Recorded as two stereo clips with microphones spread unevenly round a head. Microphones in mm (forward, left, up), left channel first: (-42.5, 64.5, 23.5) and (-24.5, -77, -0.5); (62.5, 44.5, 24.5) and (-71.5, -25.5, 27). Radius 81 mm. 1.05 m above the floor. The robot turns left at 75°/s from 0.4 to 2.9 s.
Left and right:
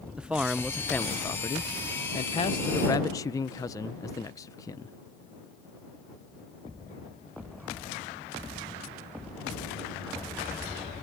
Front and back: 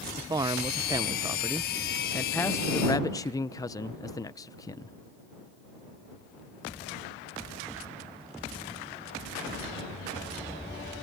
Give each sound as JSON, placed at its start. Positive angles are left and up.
{"t": 0.2, "sound": "a man speaking", "azimuth_deg": -135}